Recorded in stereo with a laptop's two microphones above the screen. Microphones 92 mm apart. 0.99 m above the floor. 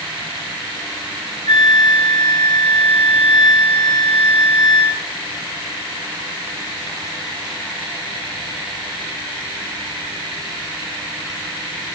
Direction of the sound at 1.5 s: 75° left (ahead or behind).